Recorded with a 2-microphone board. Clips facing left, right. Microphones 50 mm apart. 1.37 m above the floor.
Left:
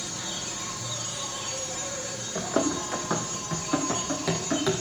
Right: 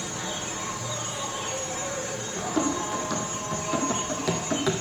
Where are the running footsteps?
40° left (ahead or behind), 3.5 m; by 4.7 s 5° right (ahead or behind), 4 m.